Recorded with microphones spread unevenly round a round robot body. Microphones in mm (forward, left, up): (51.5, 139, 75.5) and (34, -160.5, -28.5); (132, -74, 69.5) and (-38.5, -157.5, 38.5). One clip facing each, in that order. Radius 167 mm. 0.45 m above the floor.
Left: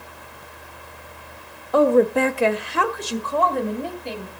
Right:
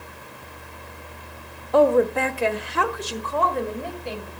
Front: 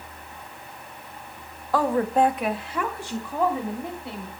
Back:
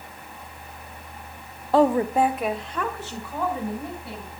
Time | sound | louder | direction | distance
1.7 | a woman speaking | left 2 dB, back 3 dB | 160° right | 0.8 m